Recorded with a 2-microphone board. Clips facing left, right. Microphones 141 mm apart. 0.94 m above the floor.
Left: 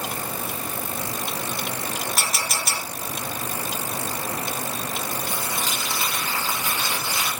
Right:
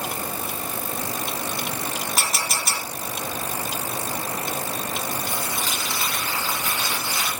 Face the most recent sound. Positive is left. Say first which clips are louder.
# even
turn(degrees=20)  # may be behind; listen again after turning